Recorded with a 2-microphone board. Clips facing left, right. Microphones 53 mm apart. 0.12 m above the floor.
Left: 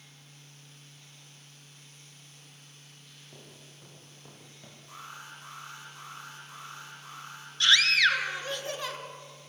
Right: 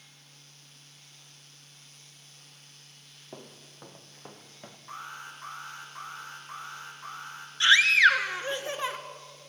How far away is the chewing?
No chewing in this recording.